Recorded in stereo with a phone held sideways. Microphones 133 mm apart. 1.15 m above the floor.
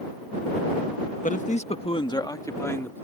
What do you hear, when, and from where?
1.2 s a man speaking: 75° left (ahead or behind); by 3.0 s 15° left (ahead or behind)